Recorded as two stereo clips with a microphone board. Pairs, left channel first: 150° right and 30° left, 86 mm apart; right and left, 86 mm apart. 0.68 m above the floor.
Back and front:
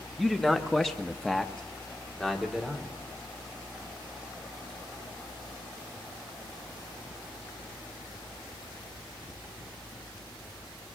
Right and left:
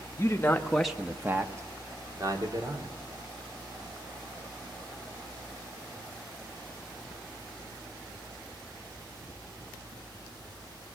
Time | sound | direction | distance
0.2 | a man speaking | 65° right | 1.3 m